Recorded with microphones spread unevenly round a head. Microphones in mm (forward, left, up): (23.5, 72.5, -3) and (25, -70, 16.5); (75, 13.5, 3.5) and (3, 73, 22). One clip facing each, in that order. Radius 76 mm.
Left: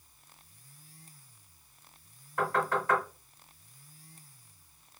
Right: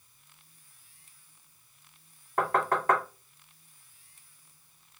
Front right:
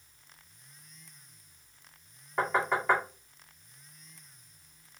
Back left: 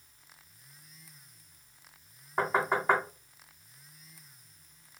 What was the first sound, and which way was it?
Knocking, 135° right.